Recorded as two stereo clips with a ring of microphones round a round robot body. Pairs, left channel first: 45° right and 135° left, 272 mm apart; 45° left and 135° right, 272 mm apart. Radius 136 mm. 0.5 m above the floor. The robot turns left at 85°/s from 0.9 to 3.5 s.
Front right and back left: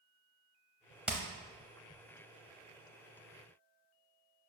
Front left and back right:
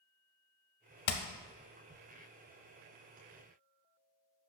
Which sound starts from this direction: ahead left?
Hammering, at 1.1 s.